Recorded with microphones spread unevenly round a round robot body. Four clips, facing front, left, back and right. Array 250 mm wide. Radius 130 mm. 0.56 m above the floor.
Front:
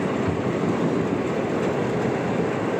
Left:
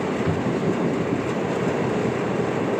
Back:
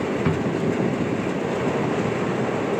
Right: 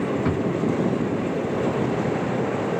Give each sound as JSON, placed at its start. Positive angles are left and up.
{"t": 0.2, "sound": "a drawer", "azimuth_deg": -150, "distance_m": 2.5}